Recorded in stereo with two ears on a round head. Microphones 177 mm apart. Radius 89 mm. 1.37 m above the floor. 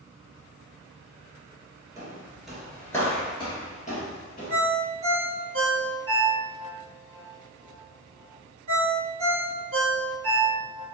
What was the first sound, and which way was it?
Footsteps, 20° right (ahead or behind).